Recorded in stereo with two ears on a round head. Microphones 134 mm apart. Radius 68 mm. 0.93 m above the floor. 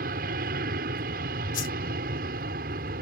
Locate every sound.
0.0 s an aircraft: 65° right (ahead or behind)
1.5 s a whoosh: 60° left (ahead or behind)